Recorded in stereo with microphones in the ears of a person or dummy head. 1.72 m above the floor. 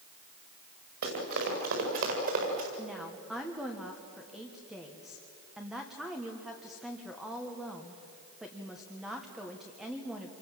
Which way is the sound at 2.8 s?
5° right (ahead or behind).